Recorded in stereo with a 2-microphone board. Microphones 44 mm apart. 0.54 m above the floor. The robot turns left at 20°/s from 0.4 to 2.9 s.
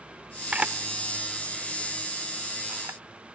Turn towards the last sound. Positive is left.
turn(degrees=-65)  # may be behind; listen again after turning